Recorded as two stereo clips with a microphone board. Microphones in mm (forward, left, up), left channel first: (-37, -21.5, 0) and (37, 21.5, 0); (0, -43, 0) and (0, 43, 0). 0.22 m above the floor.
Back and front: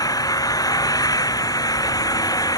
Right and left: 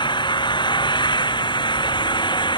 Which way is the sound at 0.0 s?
110° right.